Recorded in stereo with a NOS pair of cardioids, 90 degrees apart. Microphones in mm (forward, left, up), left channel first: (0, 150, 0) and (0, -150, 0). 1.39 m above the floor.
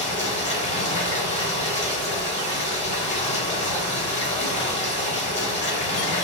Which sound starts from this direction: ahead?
Running water, at 0.0 s.